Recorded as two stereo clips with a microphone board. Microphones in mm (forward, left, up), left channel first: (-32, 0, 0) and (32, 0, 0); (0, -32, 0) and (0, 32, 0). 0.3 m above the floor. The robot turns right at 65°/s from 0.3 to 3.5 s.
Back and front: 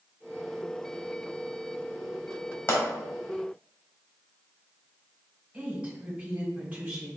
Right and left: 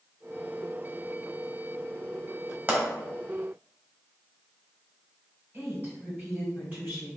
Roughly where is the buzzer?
No buzzer in this recording.